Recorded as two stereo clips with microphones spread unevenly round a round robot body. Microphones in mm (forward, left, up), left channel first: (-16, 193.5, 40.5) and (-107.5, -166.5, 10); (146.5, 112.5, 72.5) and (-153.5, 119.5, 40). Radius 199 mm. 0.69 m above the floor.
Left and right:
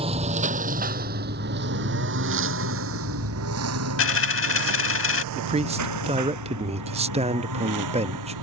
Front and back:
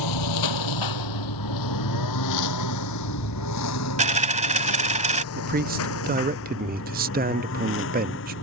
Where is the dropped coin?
115° left.